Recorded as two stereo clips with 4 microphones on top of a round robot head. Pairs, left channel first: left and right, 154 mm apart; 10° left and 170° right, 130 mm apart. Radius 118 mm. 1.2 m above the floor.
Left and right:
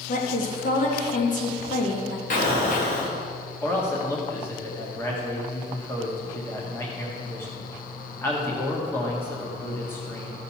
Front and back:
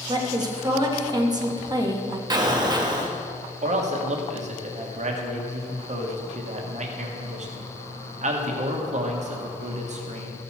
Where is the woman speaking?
135° left, 1.7 m.